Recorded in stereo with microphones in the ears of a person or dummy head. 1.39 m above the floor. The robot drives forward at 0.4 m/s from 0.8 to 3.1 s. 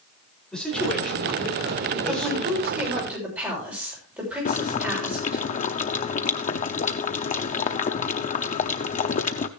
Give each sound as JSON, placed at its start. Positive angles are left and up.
{"t": 0.5, "sound": "a man speaking", "side_deg": 5, "distance_m": 5.5}
{"t": 2.0, "sound": "a woman speaking", "side_deg": -10, "distance_m": 6.5}
{"t": 4.5, "sound": "boiling", "side_deg": 40, "distance_m": 0.8}